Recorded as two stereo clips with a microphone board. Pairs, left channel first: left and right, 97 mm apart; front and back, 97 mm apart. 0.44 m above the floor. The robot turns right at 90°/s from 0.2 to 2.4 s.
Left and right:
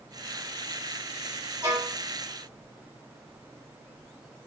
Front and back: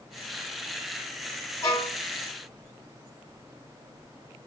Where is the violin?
40° right, 1.5 m; by 2.0 s 10° right, 1.5 m.